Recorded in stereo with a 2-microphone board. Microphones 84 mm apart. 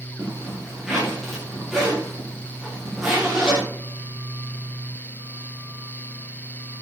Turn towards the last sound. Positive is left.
turn(degrees=-5)  # may be behind; listen again after turning